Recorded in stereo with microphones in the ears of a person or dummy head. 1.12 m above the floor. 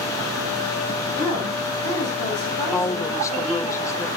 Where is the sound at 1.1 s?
55° right (ahead or behind), 7.5 m; by 3.7 s 45° right (ahead or behind), 7 m.